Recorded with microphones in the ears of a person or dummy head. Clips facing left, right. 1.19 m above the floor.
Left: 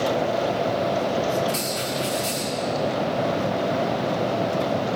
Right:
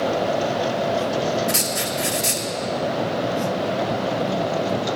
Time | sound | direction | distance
1.5 | writing | 20° right (ahead or behind) | 1.8 m